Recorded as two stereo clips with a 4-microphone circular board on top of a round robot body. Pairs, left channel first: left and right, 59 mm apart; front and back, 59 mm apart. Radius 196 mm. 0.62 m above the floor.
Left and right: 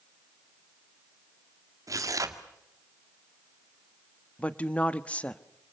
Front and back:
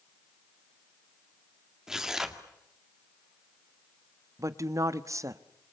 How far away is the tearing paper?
About 2.5 m.